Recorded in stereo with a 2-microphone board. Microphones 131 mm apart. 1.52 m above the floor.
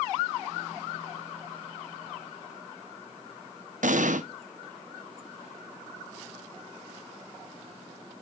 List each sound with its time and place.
3.8 s an explosion: 75° right (ahead or behind), 0.8 m